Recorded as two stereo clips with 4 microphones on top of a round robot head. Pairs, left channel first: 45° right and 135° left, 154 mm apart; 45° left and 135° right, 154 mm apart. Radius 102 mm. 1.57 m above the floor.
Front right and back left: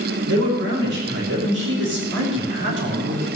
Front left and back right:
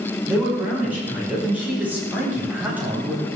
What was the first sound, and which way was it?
A man speaking, 140° left.